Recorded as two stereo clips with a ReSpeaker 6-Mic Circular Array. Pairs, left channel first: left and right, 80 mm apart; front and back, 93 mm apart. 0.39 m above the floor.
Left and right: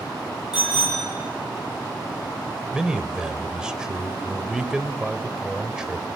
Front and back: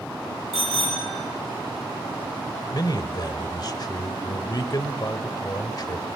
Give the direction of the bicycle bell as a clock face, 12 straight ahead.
12 o'clock.